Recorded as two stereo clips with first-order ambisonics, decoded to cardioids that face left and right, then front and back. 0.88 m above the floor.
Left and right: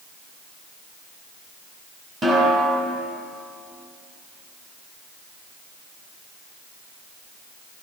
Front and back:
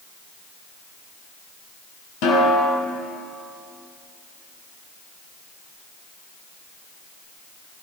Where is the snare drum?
25° right, 3 m.